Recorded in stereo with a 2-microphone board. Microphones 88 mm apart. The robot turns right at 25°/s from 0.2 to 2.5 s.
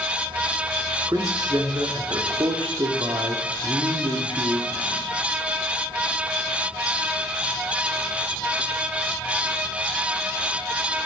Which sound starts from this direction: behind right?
A man speaking, at 1.1 s.